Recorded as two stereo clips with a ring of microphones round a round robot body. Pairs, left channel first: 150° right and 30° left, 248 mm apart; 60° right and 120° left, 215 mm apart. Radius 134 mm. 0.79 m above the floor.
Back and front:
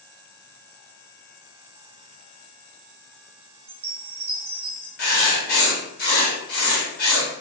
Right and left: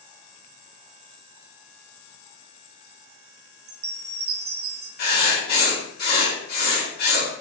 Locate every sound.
3.7 s a chime: 100° left, 0.5 m
5.0 s writing: 105° right, 1.6 m